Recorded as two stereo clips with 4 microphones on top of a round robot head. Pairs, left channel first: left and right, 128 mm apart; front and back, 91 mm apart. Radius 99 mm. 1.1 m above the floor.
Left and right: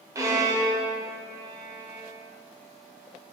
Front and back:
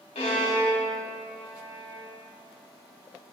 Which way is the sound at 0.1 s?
25° right.